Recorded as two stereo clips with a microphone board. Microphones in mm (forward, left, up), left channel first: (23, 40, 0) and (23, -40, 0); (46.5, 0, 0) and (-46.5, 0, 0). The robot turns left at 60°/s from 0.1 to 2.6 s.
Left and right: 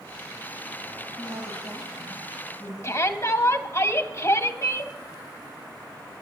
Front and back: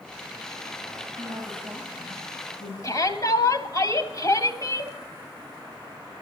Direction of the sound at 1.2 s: 135° left.